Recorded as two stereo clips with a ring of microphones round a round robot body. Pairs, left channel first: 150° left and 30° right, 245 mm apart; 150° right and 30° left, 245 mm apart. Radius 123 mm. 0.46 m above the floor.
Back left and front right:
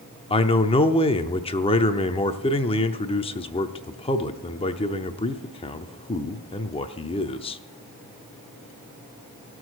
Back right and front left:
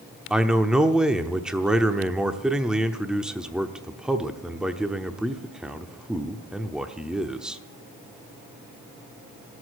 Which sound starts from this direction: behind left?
A man speaking, at 0.3 s.